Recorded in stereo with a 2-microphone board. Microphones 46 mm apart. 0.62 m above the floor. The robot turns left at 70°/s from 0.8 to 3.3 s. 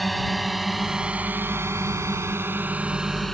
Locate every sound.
0.0 s a drone: centre (ahead or behind); by 3.3 s 5° left (ahead or behind)